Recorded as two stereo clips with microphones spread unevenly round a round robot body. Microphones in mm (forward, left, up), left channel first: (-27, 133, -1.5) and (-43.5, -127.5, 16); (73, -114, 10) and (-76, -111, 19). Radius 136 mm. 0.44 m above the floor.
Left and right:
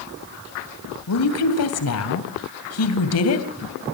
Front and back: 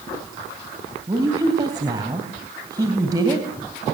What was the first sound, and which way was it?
A woman speaking, 105° left.